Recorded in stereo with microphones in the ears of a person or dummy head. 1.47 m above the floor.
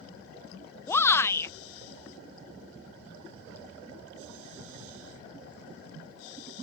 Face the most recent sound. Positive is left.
turn(degrees=15)  # may be behind; listen again after turning